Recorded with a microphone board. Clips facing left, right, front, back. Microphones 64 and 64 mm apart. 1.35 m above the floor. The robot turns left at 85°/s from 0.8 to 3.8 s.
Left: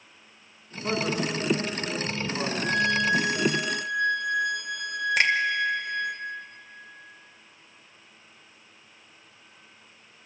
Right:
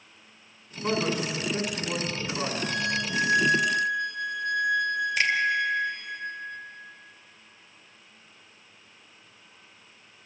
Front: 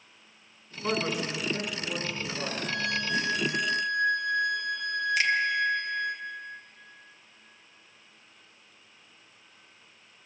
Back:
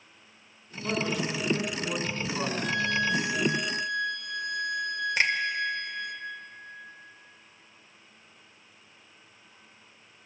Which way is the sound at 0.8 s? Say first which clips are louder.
Even, even; 45° right.